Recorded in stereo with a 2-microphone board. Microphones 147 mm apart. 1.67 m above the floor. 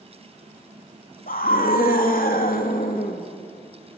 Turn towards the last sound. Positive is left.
turn(degrees=75)  # may be behind; listen again after turning